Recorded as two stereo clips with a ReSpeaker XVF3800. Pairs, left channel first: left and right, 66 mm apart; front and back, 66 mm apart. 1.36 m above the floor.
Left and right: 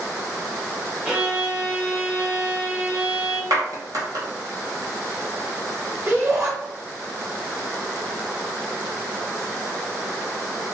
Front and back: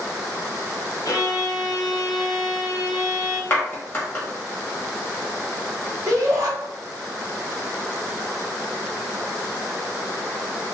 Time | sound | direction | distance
1.1 | a violin | 20° right | 0.9 m
3.5 | a clap | 65° right | 1.2 m
6.1 | a shout | 140° right | 1.3 m